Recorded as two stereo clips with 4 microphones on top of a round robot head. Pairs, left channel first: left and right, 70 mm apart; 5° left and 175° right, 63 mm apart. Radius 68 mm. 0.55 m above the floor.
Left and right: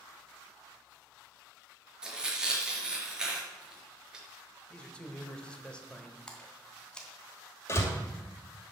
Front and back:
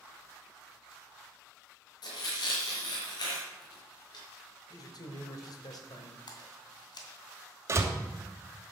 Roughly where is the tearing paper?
Ahead.